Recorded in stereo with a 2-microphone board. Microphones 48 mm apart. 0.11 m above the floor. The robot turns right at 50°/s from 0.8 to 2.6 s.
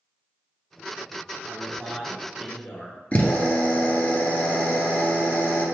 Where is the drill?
30° left (ahead or behind), 1.4 m.